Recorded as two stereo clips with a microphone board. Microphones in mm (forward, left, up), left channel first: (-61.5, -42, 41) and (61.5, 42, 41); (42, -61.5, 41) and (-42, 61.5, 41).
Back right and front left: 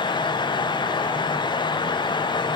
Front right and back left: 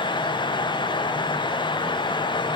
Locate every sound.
Only background noise.